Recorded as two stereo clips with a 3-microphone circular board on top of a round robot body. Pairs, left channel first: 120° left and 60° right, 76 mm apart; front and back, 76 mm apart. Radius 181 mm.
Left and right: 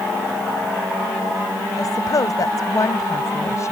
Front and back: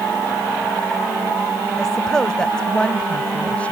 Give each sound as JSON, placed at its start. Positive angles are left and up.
{"t": 1.8, "sound": "a woman speaking", "azimuth_deg": 85}